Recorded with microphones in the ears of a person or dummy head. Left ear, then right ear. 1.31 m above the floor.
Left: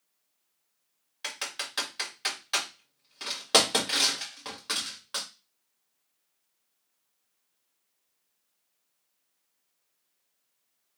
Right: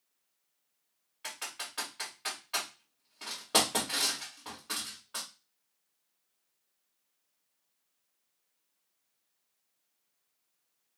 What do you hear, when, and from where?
1.2 s typing on a keyboard: 40° left (ahead or behind), 1.7 m